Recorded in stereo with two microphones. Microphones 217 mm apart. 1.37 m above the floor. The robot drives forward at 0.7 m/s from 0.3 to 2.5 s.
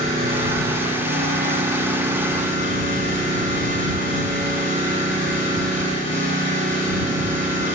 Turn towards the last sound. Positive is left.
turn(degrees=-65)  # may be behind; listen again after turning